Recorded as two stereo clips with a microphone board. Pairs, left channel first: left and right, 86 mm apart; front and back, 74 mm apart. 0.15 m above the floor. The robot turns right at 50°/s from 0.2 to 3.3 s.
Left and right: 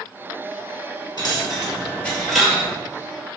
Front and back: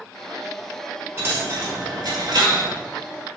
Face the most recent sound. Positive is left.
turn(degrees=-130)